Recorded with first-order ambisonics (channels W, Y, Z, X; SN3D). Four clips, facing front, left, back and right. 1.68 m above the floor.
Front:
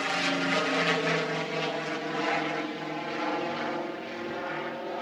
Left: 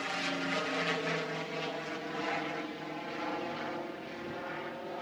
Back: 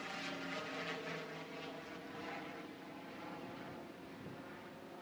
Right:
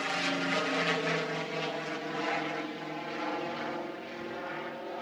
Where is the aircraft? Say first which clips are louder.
Right 3 dB, front 17 dB; 15° right; by 5.0 s 5° right.